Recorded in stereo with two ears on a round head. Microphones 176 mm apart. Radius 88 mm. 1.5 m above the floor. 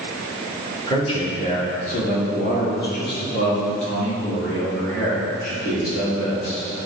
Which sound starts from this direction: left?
A man speaking, at 0.9 s.